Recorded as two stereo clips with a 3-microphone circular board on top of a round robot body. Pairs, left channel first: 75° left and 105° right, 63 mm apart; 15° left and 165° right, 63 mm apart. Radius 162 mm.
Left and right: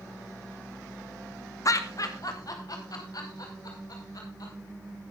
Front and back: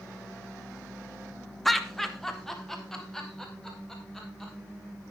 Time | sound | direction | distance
1.6 | laughter | 100° left | 1.3 m